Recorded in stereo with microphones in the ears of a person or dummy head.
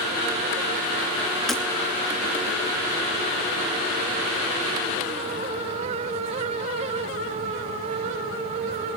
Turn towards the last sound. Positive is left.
turn(degrees=0)  # may be behind; listen again after turning